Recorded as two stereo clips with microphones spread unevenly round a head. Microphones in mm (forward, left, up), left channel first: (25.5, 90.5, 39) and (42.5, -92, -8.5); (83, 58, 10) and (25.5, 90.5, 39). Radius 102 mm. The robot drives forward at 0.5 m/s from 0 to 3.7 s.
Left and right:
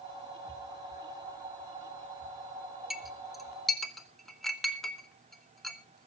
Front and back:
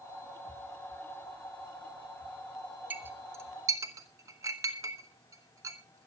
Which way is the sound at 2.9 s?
175° left.